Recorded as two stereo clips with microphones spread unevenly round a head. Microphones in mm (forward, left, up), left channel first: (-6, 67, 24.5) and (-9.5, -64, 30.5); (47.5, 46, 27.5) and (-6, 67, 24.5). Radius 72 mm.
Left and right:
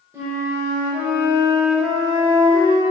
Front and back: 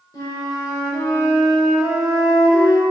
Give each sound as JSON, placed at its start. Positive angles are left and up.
{"t": 0.1, "sound": "a flute", "azimuth_deg": -15, "distance_m": 4.0}